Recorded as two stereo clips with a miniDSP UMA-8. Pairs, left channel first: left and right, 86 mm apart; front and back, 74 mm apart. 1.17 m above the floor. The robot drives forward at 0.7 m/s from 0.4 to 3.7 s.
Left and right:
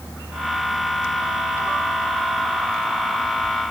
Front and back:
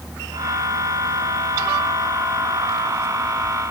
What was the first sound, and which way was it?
Only background noise.